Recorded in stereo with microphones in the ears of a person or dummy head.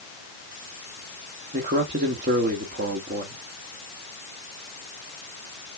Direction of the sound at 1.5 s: 40° right (ahead or behind).